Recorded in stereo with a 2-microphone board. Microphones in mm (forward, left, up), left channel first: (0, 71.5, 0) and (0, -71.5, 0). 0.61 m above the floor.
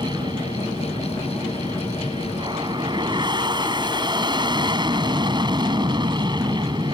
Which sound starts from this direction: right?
An aircraft, at 0.0 s.